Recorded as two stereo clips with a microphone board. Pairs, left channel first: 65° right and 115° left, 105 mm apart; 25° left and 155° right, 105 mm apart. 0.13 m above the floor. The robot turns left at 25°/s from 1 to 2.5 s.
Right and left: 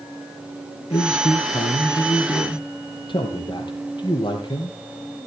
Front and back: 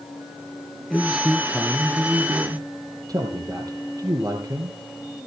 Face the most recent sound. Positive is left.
turn(degrees=-105)